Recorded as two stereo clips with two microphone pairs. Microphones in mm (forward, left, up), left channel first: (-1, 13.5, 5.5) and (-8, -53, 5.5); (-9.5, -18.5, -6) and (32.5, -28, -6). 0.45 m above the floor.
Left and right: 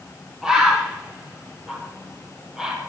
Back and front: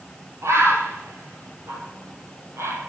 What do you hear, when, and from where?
0.4 s a bird: 15° right, 3 m